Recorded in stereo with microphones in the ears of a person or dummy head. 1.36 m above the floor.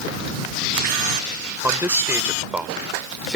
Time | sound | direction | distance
1.6 | a man speaking | 15° right (ahead or behind) | ?